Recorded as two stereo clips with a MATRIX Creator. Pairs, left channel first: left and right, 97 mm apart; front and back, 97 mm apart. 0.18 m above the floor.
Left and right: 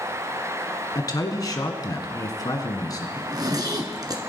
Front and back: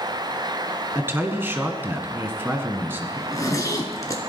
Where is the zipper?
50° right, 1.4 m.